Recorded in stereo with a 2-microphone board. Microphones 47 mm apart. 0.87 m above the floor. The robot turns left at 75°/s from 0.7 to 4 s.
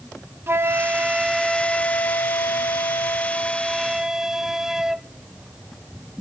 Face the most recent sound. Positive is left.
turn(degrees=-10)